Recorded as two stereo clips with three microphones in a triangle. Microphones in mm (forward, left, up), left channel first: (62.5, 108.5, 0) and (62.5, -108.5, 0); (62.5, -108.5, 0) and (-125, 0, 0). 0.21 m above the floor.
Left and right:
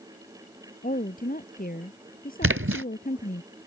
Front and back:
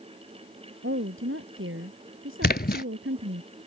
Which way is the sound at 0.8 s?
135° left.